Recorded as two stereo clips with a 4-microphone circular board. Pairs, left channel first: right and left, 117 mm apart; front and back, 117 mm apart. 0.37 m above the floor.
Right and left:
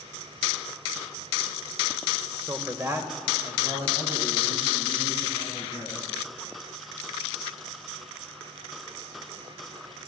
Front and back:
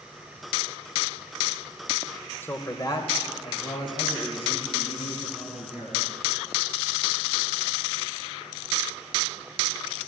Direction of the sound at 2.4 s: 40° left.